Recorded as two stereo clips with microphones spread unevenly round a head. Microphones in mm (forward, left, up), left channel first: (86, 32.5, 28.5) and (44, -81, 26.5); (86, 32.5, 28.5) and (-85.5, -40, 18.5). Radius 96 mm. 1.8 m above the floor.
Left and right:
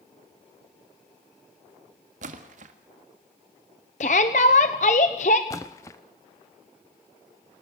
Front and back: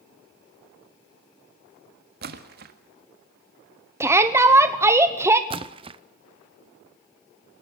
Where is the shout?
125° left, 0.9 m.